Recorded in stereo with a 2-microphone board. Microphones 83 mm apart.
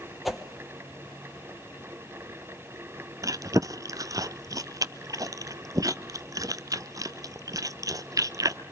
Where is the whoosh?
Centre (ahead or behind), 1.6 m.